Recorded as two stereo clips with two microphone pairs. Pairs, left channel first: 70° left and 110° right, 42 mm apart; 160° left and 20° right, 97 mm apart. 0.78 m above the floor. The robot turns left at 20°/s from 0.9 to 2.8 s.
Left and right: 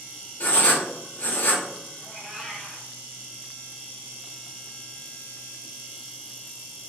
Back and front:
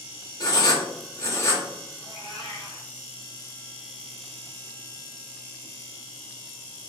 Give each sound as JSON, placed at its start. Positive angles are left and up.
{"t": 0.4, "sound": "writing", "azimuth_deg": 115, "distance_m": 1.0}
{"t": 2.0, "sound": "a cat meowing", "azimuth_deg": 165, "distance_m": 1.6}